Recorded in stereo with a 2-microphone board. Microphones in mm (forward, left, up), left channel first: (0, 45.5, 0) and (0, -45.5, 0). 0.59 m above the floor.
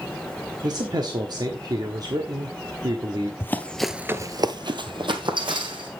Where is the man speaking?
45° right (ahead or behind), 1.2 m.